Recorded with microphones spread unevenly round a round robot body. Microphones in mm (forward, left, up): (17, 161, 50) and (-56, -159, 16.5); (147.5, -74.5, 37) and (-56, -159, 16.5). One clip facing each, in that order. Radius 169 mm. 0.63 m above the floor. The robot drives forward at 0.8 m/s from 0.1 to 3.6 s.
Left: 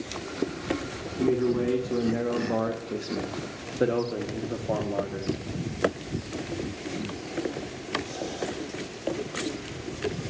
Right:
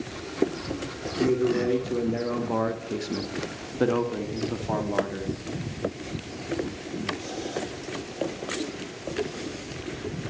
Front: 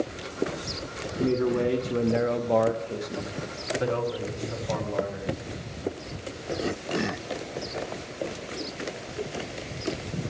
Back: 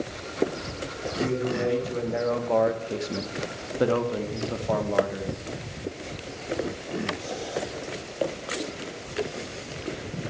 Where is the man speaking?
10° right, 1.3 m; by 5.3 s 170° right, 1.0 m.